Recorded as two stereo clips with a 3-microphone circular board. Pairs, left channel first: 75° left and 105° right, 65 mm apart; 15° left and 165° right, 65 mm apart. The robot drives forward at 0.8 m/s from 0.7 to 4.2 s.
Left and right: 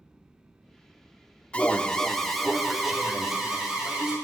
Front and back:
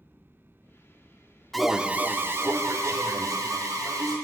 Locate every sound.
1.5 s an alarm: 95° left, 0.6 m; by 4.2 s 175° left, 2 m